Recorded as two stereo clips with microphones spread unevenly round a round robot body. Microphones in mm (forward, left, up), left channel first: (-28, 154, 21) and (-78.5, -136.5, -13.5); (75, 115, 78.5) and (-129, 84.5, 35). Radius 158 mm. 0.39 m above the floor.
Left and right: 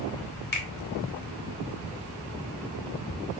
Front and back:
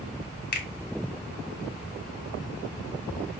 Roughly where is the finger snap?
Ahead left.